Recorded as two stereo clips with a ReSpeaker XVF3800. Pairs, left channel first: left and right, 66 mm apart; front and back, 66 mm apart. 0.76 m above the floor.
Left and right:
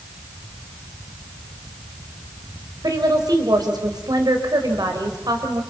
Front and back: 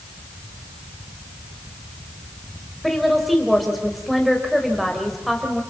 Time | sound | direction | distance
2.8 | a woman speaking | 90° right | 4 m